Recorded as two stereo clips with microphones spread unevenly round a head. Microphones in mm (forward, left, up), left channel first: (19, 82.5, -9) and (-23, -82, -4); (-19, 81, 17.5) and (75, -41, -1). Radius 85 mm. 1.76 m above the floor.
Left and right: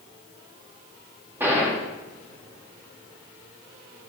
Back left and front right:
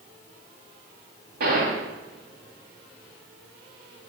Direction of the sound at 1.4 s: 25° right.